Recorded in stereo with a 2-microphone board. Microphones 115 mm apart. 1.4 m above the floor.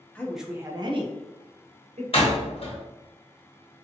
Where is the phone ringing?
I don't hear a phone ringing.